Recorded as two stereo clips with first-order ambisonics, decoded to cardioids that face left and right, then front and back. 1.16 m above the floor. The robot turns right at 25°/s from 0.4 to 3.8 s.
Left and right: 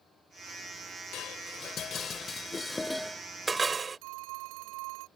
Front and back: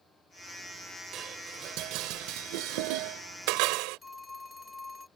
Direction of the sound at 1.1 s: 130° left.